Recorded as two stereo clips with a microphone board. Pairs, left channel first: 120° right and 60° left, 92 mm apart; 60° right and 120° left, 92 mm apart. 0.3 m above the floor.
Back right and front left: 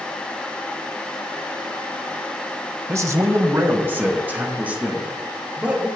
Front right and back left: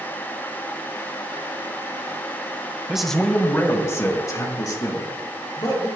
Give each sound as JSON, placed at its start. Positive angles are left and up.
{"t": 2.9, "sound": "a man speaking", "azimuth_deg": 50, "distance_m": 1.0}